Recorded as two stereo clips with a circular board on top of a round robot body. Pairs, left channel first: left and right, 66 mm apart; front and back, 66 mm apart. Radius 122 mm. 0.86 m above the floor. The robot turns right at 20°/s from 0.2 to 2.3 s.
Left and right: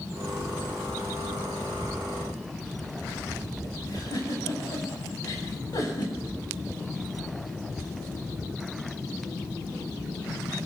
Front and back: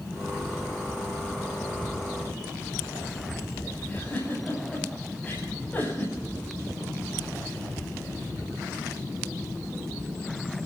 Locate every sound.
3.9 s a giggle: 70° left, 8 m